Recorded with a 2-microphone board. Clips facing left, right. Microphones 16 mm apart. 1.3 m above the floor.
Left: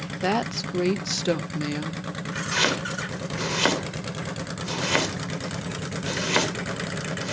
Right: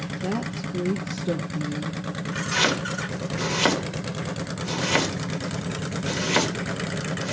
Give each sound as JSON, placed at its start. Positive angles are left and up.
{"t": 0.2, "sound": "a woman speaking", "side_deg": 70, "distance_m": 0.8}
{"t": 2.5, "sound": "chopping", "side_deg": 0, "distance_m": 3.0}